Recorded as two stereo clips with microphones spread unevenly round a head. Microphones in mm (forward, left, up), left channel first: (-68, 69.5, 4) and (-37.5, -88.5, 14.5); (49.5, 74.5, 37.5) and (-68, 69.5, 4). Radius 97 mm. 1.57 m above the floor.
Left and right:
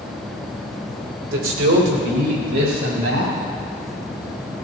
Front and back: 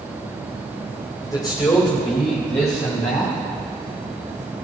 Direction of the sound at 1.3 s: 75° right.